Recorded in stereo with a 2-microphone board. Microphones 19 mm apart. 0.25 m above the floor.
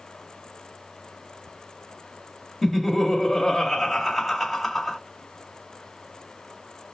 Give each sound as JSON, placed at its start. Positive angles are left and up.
{"t": 2.6, "sound": "laughter", "side_deg": 0, "distance_m": 1.0}